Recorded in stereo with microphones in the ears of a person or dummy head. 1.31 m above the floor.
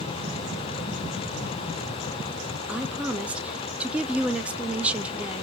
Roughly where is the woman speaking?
Centre.